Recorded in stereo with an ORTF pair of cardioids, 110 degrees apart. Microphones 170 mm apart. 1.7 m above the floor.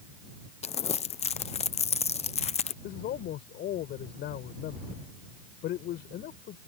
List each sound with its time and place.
0.6 s crumpling: 40° left
2.8 s a man speaking: 70° left